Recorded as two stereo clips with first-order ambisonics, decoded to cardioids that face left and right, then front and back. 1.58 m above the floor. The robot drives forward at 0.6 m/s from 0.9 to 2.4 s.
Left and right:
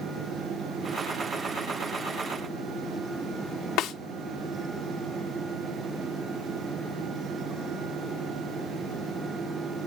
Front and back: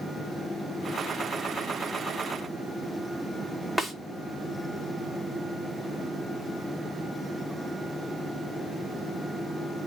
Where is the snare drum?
100° left, 0.7 m.